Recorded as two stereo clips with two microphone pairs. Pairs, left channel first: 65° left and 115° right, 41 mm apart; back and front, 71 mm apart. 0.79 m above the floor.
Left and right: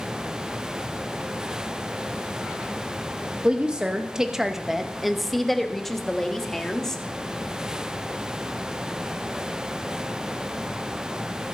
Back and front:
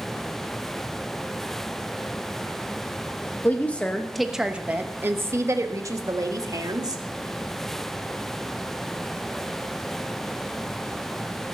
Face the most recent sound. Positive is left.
turn(degrees=-10)